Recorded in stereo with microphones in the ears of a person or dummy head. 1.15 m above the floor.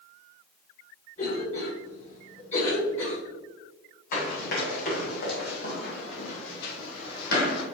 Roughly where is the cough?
Left.